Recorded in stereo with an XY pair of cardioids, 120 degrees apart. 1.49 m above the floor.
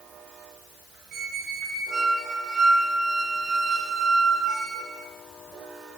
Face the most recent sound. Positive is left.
turn(degrees=-60)